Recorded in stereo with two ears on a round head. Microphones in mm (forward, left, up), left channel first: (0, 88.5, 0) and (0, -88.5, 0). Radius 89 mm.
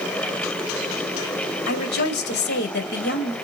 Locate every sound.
1.7 s a woman speaking: 60° left (ahead or behind), 1.5 m